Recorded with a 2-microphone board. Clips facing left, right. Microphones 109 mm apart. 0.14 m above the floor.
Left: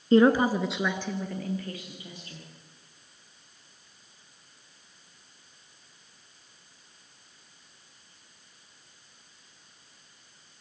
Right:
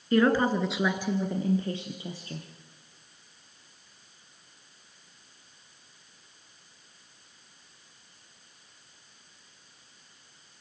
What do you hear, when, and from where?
0.1 s a woman speaking: 30° left (ahead or behind), 1.4 m; by 2.5 s 35° right (ahead or behind), 3.5 m